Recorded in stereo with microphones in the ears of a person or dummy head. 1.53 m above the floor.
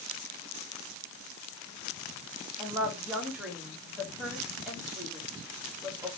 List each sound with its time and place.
2.6 s a woman speaking: 15° right (ahead or behind), 2 m